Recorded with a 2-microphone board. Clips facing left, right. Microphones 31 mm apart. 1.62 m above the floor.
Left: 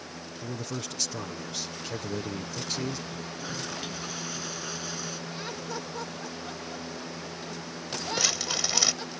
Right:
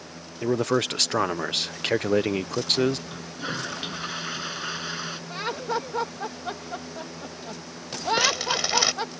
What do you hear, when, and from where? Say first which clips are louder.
0.4 s a man speaking: right 14 dB; 70° right (ahead or behind)
3.1 s a toilet flushing: right 3 dB; 35° right (ahead or behind)
5.3 s laughter: right 12 dB; 50° right (ahead or behind)
8.2 s crumpling: right 4 dB; 20° right (ahead or behind)